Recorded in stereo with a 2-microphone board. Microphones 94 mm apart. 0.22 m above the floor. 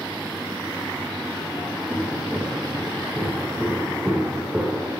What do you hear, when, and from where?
1.9 s footsteps: centre (ahead or behind), 5.5 m; by 4.9 s 10° right (ahead or behind), 3.5 m